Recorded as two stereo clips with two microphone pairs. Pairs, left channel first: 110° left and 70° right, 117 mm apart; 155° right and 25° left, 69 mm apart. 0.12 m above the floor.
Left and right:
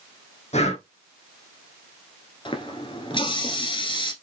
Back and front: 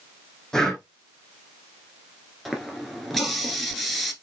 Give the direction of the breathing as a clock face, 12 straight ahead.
8 o'clock.